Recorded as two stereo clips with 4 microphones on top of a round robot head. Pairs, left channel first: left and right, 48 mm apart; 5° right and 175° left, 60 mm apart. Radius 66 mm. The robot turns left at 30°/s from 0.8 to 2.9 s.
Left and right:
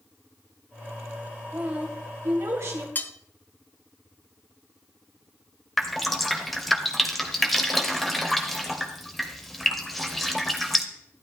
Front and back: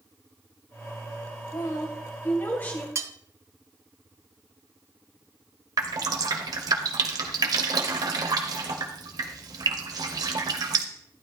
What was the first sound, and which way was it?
A woman speaking, 30° right.